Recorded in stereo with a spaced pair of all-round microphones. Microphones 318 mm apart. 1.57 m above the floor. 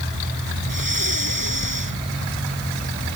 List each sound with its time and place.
0.7 s breathing: 90° right